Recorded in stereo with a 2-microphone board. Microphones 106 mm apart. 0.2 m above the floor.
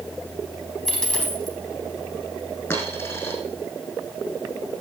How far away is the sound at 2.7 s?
About 4.5 m.